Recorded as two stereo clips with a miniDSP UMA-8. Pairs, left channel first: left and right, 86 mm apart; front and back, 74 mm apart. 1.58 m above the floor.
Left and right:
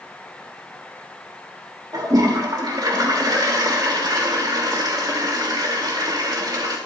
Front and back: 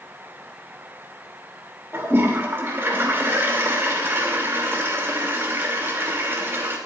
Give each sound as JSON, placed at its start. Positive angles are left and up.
{"t": 1.9, "sound": "a toilet flushing", "azimuth_deg": -125, "distance_m": 2.5}